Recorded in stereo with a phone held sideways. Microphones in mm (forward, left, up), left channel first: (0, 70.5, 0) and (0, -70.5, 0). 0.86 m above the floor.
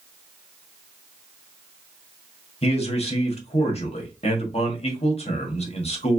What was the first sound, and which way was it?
A man speaking, 45° left (ahead or behind).